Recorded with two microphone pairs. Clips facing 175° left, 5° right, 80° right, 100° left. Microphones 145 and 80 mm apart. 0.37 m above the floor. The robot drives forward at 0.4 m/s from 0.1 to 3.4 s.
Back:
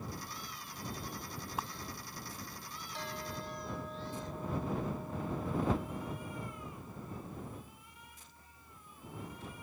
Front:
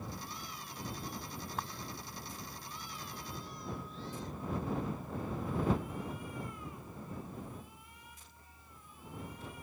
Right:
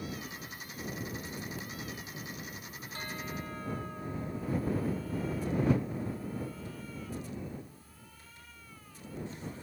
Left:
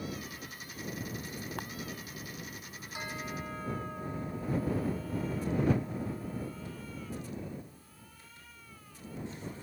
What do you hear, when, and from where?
1.6 s a camera shutter: 90° left
2.9 s a bell: 175° left